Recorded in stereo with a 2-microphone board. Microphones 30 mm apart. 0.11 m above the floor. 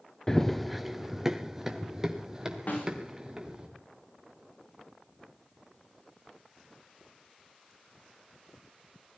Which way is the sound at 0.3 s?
20° left (ahead or behind).